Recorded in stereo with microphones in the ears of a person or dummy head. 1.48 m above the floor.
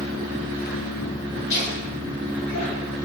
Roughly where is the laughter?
Left.